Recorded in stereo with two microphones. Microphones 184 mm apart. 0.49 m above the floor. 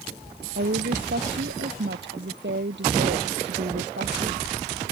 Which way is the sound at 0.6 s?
80° right.